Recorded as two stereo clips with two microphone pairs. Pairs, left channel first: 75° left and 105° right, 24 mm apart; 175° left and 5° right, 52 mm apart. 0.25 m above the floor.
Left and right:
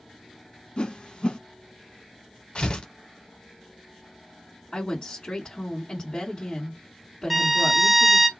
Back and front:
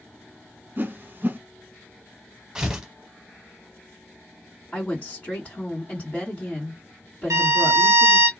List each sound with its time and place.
0.8 s a whoosh: 40° left, 0.6 m
2.5 s tearing paper: 70° left, 1.1 m
4.7 s a woman speaking: 120° left, 2 m
7.3 s a violin: 10° right, 0.6 m